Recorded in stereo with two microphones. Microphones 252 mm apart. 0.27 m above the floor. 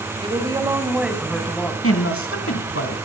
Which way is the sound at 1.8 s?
60° left (ahead or behind).